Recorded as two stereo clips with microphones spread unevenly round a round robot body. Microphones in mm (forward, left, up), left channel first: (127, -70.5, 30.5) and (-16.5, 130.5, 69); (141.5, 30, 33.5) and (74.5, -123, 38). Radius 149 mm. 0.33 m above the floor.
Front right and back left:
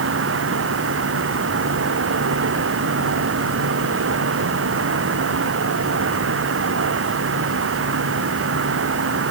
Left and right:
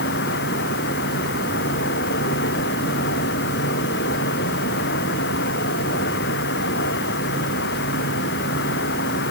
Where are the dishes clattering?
No dishes clattering in this recording.